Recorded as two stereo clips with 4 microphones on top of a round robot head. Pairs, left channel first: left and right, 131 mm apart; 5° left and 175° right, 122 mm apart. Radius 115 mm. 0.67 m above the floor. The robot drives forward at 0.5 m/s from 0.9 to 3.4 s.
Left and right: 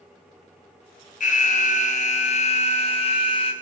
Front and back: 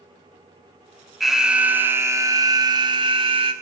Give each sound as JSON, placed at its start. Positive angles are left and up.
{"t": 1.2, "sound": "an alarm", "azimuth_deg": 95, "distance_m": 1.2}